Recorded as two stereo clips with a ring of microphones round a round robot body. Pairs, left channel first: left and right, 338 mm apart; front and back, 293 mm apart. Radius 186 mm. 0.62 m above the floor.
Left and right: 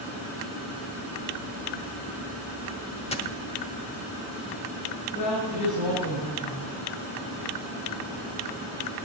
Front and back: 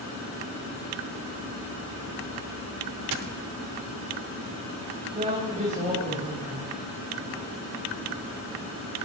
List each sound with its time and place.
3.1 s a dropped coin: 165° left, 1.0 m
5.2 s a woman speaking: 110° left, 3.5 m